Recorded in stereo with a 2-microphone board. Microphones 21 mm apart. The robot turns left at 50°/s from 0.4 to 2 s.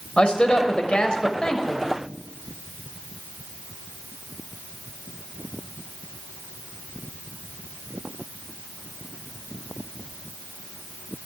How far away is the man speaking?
About 1.6 m.